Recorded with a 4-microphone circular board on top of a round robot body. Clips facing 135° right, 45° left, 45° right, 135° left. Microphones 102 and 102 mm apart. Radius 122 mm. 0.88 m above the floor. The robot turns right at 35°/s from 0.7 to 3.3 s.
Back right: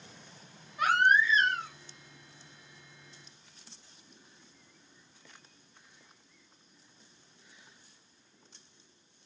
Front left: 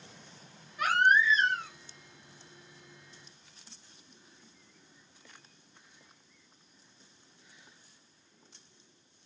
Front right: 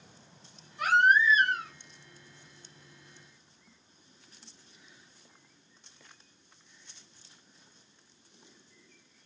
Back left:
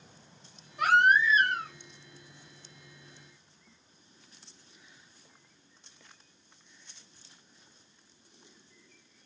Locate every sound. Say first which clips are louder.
0.8 s a baby crying: even, back left 1 dB; 155° left, 2.5 m; by 1.7 s 170° right, 2.5 m